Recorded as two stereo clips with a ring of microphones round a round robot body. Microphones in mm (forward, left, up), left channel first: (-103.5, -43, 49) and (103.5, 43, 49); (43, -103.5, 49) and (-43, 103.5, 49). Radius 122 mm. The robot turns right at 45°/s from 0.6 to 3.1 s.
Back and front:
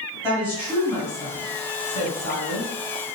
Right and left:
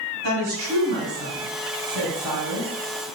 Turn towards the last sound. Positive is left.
turn(degrees=-125)